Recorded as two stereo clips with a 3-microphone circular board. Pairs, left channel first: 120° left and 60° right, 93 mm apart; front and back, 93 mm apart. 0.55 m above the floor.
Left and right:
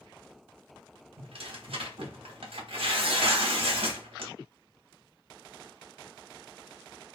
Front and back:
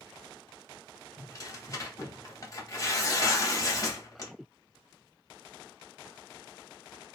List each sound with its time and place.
1.2 s tearing paper: 55° right, 0.7 m